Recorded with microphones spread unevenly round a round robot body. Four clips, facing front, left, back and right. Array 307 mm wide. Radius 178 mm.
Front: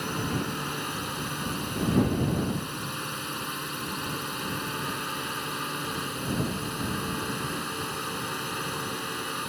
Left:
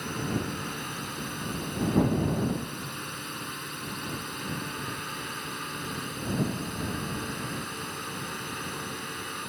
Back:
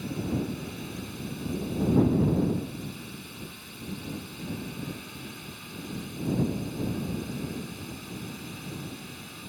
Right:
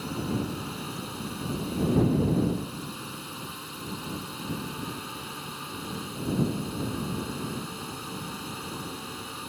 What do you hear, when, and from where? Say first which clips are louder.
0.0 s a drone: right 1 dB, front 1 dB; 10° left